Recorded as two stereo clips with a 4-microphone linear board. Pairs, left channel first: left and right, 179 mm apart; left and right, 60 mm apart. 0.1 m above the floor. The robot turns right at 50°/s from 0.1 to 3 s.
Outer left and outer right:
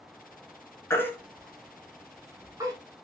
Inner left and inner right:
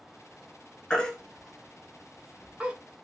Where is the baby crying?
15° left (ahead or behind), 0.9 m; by 2.8 s 20° right (ahead or behind), 0.9 m.